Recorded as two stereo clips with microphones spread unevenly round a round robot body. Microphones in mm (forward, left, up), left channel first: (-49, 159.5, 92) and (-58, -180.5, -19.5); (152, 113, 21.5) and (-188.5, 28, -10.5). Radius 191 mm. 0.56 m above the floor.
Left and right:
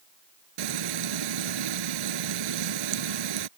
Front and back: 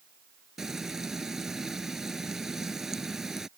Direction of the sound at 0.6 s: 75° right.